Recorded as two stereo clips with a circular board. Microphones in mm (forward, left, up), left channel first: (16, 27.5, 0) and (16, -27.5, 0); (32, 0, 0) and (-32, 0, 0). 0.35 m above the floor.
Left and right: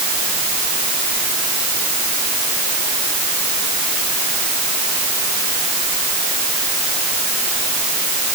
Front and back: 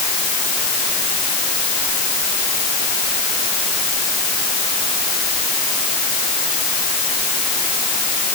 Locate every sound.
Only background noise.